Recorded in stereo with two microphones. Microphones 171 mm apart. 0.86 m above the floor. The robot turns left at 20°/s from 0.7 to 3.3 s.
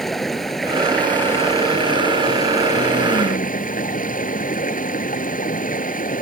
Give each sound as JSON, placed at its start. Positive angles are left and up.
{"t": 0.0, "sound": "running water", "azimuth_deg": 180}